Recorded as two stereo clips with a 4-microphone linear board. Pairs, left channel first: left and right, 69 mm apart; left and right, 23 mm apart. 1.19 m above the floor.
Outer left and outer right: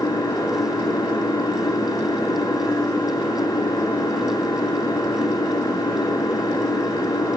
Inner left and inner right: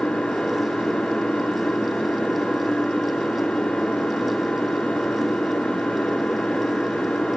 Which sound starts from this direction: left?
An engine running, at 0.0 s.